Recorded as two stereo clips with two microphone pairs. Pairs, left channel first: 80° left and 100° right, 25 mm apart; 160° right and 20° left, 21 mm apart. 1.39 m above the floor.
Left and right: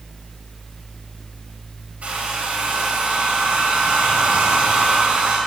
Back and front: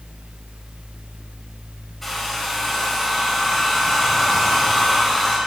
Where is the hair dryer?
80° right, 4 m.